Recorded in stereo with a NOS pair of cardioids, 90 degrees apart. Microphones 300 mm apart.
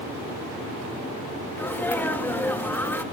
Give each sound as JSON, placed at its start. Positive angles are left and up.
{"t": 1.6, "sound": "a sneeze", "azimuth_deg": 5, "distance_m": 2.0}